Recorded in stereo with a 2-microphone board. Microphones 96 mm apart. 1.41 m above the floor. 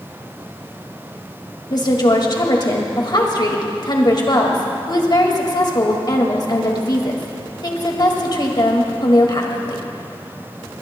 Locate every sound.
1.7 s a woman speaking: 50° left (ahead or behind), 2.0 m